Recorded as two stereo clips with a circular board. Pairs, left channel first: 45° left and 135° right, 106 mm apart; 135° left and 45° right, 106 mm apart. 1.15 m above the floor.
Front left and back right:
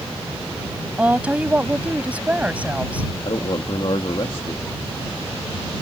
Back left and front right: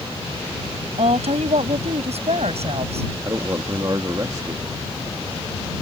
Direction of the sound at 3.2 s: 10° left.